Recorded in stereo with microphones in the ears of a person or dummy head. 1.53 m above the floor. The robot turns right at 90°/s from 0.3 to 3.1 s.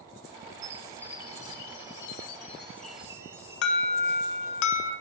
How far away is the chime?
About 0.6 m.